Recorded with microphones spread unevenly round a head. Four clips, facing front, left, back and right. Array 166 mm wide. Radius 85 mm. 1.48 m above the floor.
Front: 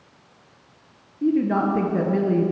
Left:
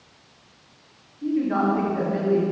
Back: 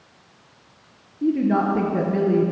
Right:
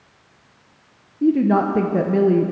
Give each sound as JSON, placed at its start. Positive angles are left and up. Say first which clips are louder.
{"t": 1.2, "sound": "a woman speaking", "louder": "right 6 dB, even", "azimuth_deg": -85, "distance_m": 0.9}